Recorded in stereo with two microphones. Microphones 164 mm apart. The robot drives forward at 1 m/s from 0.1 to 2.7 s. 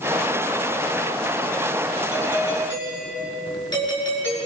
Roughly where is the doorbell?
Left.